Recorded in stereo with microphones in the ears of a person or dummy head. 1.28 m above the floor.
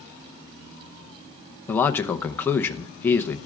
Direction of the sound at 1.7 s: 15° left (ahead or behind).